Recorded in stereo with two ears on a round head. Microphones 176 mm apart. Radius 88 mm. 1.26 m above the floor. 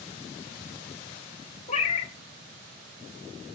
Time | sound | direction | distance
1.7 | a cat meowing | 35° left (ahead or behind) | 0.9 m